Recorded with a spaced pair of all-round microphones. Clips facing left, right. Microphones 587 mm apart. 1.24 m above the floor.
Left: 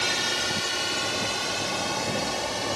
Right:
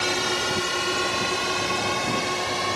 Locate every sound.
0.0 s a drone: 70° right (ahead or behind); by 2.8 s 75° right (ahead or behind)